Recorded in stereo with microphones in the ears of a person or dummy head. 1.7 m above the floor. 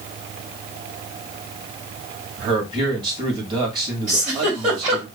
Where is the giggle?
40° right (ahead or behind), 3 m.